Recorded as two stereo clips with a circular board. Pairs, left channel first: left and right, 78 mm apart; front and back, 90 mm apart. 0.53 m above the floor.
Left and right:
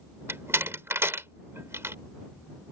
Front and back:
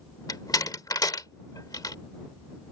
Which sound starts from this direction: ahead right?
A door slam, at 0.3 s.